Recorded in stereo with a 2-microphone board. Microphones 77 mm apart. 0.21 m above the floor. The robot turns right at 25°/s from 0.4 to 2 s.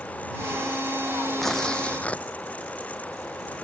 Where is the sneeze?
No sneeze in this recording.